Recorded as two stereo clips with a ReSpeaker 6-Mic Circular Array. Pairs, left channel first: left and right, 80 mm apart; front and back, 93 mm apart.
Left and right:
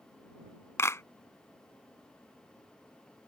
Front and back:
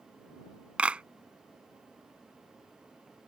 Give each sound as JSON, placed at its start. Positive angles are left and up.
{"t": 0.8, "sound": "a clap", "azimuth_deg": 110}